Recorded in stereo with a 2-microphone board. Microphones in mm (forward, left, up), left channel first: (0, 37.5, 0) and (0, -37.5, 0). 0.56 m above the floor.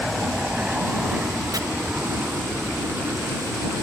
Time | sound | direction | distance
0.0 | an aircraft | 10° right (ahead or behind) | ?
1.5 | chopping | 60° right (ahead or behind) | ?